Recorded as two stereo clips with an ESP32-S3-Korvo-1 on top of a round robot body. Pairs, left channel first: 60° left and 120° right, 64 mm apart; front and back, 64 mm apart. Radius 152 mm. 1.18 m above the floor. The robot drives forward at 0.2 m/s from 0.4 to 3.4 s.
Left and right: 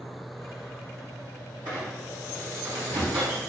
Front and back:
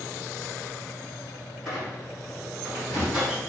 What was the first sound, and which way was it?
A squeak, 95° right.